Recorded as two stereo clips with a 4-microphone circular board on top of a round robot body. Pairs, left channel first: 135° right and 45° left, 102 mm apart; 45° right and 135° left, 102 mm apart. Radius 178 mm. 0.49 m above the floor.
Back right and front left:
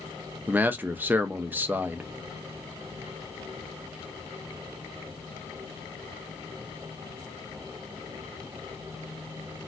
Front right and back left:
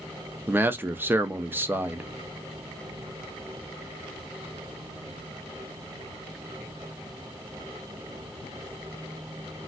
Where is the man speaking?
90° left, 0.7 m.